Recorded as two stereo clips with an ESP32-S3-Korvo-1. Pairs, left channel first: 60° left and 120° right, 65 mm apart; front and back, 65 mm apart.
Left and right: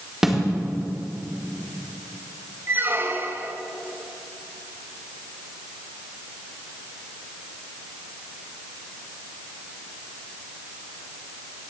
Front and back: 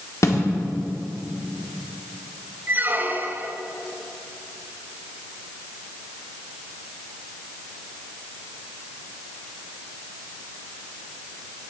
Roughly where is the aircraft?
I don't hear an aircraft.